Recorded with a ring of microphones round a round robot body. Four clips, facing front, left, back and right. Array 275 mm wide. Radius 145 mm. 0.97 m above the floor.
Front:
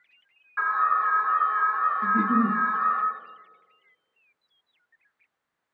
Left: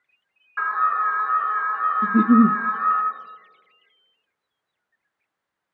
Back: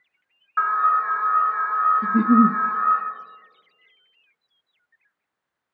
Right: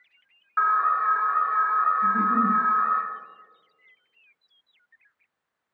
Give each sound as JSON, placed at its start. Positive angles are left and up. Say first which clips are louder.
{"t": 0.6, "sound": "an alarm", "louder": "even, back 4 dB", "azimuth_deg": -150, "distance_m": 6.0}
{"t": 2.0, "sound": "a giggle", "louder": "left 6 dB, back 6 dB", "azimuth_deg": 110, "distance_m": 0.7}